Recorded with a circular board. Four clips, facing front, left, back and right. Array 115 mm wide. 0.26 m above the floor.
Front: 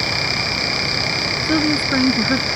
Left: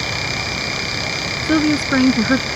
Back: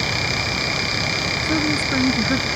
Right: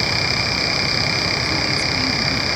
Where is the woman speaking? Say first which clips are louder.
Left 8 dB, front 4 dB; 70° left; by 2.5 s 80° left.